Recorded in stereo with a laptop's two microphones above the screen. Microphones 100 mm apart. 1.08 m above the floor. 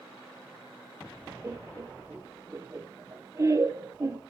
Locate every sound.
1.4 s laughter: 30° right (ahead or behind), 0.6 m